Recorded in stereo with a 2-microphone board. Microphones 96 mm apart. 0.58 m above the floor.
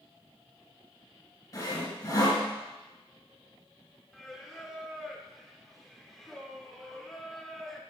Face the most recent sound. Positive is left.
turn(degrees=0)  # may be behind; listen again after turning